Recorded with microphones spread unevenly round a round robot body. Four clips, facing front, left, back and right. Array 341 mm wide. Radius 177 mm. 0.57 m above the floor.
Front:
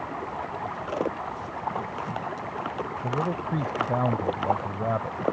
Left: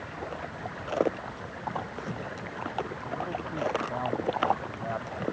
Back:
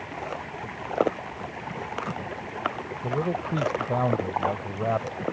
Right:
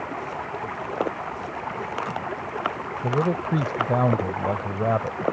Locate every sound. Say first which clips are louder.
0.0 s running water: right 6 dB, front 2 dB; 75° right
3.0 s a man speaking: right 10 dB, back 2 dB; 95° right